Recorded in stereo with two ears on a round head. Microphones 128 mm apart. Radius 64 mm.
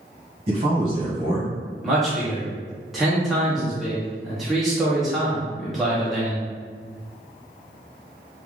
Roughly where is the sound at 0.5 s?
Right.